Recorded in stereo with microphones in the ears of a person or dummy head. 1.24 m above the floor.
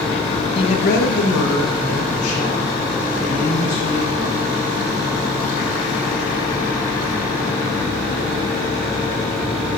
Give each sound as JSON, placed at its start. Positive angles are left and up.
{"t": 0.6, "sound": "a woman speaking", "side_deg": 30, "distance_m": 0.8}